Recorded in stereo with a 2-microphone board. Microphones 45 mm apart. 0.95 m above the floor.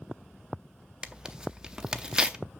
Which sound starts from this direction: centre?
Tearing paper, at 1.0 s.